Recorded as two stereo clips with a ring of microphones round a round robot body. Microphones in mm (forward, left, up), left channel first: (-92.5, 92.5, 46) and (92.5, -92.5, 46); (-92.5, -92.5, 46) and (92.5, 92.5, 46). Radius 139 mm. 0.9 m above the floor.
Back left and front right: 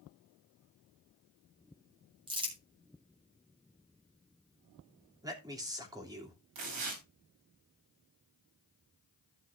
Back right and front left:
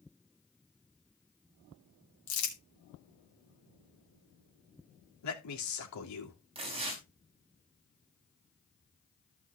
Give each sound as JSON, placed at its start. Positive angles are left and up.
{"t": 2.3, "sound": "crumpling", "azimuth_deg": -115, "distance_m": 3.0}
{"t": 5.2, "sound": "a man speaking", "azimuth_deg": -120, "distance_m": 3.0}
{"t": 6.5, "sound": "tearing paper", "azimuth_deg": -25, "distance_m": 4.0}